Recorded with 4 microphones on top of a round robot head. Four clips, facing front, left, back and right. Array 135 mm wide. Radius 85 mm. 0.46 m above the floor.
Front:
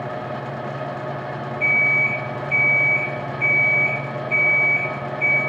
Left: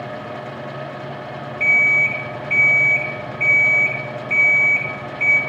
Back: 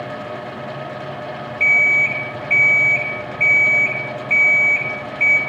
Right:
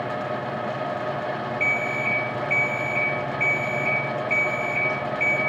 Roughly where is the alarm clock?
Behind.